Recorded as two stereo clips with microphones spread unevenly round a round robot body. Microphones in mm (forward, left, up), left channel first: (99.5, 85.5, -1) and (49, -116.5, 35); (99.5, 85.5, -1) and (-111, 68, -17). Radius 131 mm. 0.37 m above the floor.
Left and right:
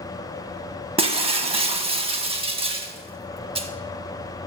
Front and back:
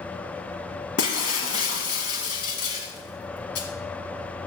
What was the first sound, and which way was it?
Breaking glass, 40° right.